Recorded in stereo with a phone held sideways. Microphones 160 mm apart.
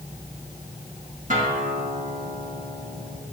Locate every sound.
1.3 s a guitar: 55° right (ahead or behind), 2.5 m